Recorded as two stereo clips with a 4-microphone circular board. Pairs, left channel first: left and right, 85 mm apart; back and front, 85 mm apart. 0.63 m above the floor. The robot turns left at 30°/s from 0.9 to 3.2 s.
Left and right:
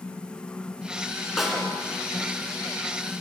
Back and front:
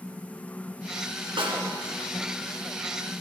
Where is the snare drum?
5° right, 2.5 m; by 1.7 s 15° right, 2.5 m.